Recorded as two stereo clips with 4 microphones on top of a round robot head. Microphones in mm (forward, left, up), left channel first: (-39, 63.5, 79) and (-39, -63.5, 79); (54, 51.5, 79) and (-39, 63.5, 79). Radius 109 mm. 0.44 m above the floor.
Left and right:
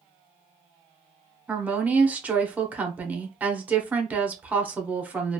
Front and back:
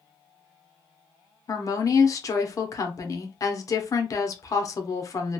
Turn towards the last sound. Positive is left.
turn(degrees=-20)